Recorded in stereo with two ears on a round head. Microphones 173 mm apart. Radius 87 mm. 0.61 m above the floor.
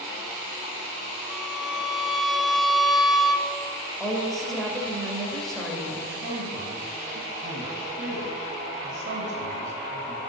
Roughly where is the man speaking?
Right.